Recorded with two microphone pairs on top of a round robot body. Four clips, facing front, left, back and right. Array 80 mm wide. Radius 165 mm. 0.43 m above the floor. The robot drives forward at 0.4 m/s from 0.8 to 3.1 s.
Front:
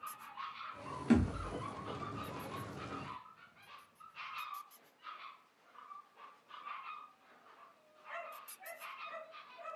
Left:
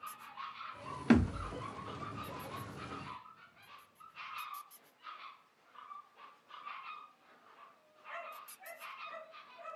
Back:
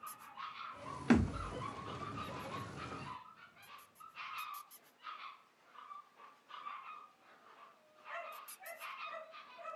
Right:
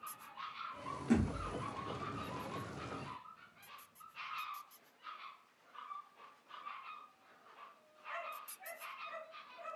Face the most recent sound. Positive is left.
turn(degrees=155)